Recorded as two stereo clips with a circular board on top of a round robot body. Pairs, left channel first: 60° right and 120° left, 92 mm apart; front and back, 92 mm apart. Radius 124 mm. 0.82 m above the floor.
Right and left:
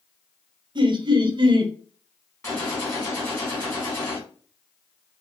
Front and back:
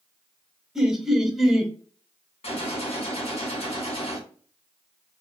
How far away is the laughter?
About 0.7 m.